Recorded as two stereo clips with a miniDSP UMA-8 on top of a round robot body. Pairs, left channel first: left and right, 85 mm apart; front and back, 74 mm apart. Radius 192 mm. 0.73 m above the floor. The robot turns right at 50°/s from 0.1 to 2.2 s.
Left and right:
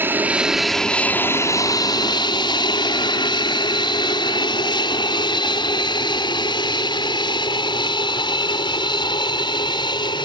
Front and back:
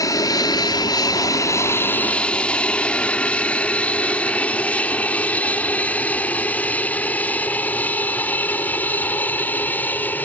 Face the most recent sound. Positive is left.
turn(degrees=65)